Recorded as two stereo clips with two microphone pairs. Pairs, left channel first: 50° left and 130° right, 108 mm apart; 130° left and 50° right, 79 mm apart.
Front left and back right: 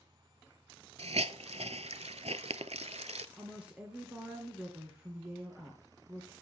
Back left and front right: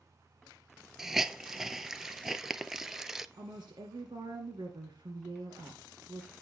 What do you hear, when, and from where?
1.0 s a hiss: 135° right, 0.6 m
3.4 s a woman speaking: 50° right, 2 m